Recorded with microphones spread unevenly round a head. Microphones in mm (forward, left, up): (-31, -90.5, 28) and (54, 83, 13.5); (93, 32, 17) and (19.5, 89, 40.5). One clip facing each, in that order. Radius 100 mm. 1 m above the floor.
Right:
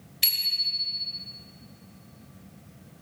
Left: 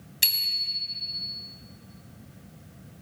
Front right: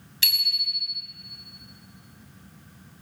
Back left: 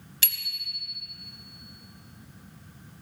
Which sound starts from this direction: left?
A bicycle bell, at 0.2 s.